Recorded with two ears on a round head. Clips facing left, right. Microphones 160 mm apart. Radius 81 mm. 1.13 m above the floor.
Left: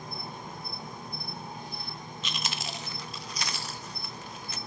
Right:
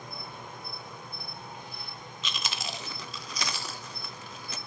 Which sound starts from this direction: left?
An insect, at 0.0 s.